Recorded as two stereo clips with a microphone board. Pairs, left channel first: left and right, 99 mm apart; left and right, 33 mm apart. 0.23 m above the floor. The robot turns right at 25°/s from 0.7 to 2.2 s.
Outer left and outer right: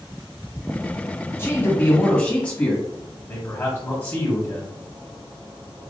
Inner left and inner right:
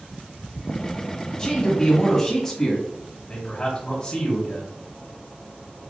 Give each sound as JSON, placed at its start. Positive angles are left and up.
{"t": 1.4, "sound": "a man speaking", "side_deg": 25, "distance_m": 1.3}
{"t": 3.3, "sound": "a man speaking", "side_deg": 30, "distance_m": 1.0}